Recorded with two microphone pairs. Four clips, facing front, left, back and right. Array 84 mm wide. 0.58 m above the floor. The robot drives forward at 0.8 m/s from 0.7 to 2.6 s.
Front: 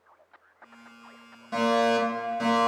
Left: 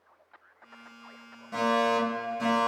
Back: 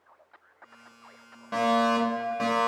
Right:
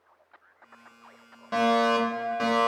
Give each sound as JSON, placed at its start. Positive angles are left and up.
{"t": 1.5, "sound": "a fire alarm", "azimuth_deg": -115, "distance_m": 4.0}